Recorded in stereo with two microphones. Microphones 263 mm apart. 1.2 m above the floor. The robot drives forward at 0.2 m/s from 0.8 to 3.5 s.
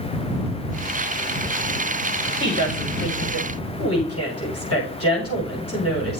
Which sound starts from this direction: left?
A woman speaking, at 2.4 s.